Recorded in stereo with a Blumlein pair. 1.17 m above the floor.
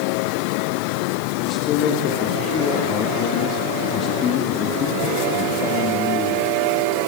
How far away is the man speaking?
About 2 m.